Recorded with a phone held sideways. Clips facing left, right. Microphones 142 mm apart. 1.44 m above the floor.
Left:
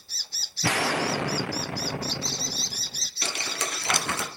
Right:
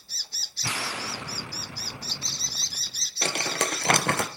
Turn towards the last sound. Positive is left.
turn(degrees=-55)  # may be behind; listen again after turning